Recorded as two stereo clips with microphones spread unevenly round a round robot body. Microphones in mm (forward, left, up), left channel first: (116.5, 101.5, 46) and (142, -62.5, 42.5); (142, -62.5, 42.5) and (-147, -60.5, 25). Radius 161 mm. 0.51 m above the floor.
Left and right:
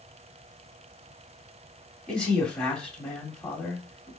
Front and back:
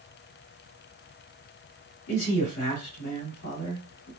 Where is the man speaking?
15° left, 1.6 m.